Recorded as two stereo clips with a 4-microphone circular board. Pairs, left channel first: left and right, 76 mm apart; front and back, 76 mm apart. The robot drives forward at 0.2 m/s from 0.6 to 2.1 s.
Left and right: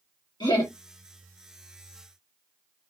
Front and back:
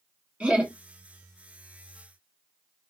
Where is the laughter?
105° left, 1.5 m; by 0.7 s 110° left, 1.5 m.